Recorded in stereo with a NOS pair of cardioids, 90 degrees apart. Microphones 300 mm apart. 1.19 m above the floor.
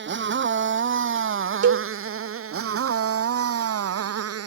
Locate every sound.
0.0 s a motorcycle: 35° right; by 4.5 s 55° right
1.6 s a cowbell: 55° right